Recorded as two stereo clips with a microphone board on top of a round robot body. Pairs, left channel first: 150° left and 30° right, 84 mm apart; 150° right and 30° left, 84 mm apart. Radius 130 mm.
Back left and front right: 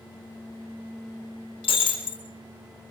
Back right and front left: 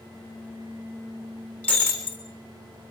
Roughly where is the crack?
I don't hear a crack.